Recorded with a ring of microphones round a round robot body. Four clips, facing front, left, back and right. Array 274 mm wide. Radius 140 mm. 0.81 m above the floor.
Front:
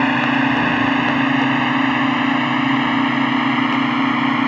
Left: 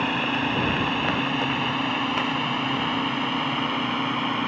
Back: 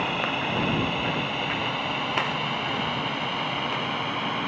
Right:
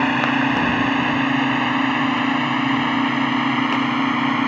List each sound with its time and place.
0.0 s a drone: 20° right